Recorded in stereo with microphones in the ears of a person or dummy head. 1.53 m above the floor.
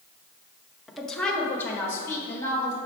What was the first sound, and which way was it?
A woman speaking, centre (ahead or behind).